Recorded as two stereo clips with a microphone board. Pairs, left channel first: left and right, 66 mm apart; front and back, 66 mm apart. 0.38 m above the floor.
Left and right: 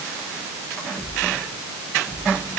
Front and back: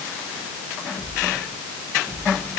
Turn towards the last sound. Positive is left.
No sound to turn to.